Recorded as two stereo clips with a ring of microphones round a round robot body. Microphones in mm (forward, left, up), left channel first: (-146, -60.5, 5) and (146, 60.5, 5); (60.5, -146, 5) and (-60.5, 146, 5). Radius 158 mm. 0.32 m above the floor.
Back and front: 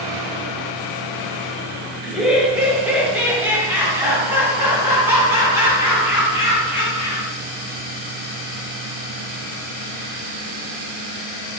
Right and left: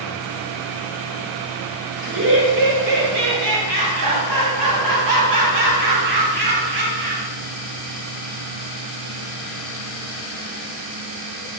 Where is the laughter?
115° left, 1.3 m; by 7.3 s 105° left, 4.5 m.